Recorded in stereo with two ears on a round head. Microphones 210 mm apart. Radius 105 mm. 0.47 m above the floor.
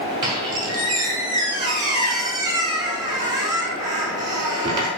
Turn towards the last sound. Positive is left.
turn(degrees=-20)  # may be behind; listen again after turning